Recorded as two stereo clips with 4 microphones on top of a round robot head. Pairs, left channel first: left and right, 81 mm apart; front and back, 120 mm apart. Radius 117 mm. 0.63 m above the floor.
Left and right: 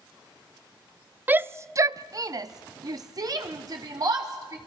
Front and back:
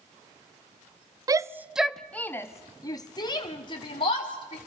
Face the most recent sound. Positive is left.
turn(degrees=-45)